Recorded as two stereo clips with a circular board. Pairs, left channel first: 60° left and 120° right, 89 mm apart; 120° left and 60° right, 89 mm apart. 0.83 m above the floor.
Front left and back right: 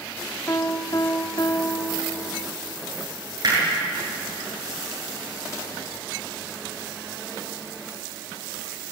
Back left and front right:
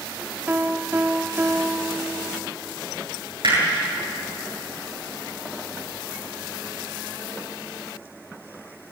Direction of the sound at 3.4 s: 80° right.